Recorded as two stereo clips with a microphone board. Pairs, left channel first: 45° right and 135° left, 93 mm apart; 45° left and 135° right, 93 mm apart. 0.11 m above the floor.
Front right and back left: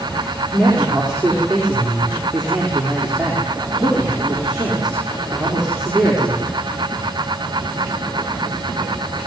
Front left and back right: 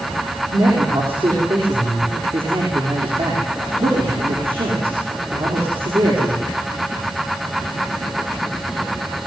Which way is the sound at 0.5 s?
140° right.